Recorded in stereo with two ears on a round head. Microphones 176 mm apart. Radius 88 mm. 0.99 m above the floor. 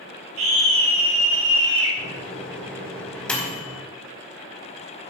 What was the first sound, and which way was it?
A scream, 75° right (ahead or behind).